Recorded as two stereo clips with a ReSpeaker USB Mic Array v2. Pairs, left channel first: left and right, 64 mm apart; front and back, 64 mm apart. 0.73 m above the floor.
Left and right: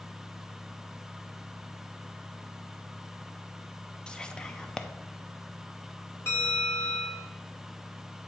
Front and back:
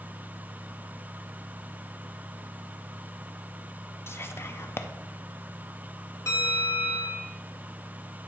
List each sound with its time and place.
4.1 s whispering: 20° left, 0.6 m
6.3 s a bell: 40° left, 2.5 m